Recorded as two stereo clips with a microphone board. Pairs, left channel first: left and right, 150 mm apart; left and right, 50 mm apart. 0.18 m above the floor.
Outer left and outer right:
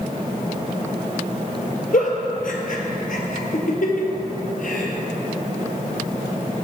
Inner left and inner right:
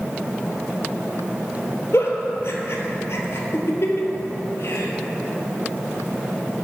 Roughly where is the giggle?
Left.